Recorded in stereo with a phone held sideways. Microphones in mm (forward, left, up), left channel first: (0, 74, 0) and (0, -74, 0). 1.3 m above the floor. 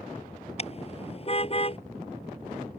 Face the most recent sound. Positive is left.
turn(degrees=40)  # may be behind; listen again after turning